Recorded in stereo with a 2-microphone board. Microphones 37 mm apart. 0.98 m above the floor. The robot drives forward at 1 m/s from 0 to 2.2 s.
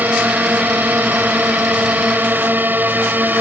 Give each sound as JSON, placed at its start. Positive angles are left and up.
{"t": 0.0, "sound": "a drone", "side_deg": -60}